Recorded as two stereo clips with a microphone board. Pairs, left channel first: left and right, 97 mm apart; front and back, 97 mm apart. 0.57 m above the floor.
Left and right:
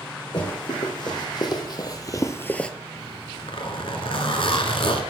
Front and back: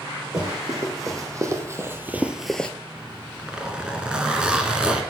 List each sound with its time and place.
0.3 s running footsteps: 130° left, 2 m; by 2.7 s 30° left, 0.5 m
3.0 s a zipper: 100° left, 1.0 m